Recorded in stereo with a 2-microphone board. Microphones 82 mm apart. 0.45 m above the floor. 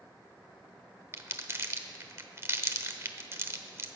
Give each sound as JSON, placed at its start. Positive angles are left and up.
{"t": 1.1, "sound": "crumpling", "side_deg": -35, "distance_m": 0.9}